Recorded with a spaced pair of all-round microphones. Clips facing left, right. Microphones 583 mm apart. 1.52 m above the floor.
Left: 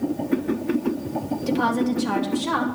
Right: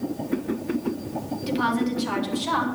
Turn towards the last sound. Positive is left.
turn(degrees=65)  # may be behind; listen again after turning